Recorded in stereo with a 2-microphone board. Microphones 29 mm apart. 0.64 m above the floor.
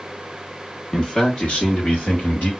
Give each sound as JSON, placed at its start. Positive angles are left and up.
{"t": 0.9, "sound": "a man speaking", "side_deg": 30, "distance_m": 1.0}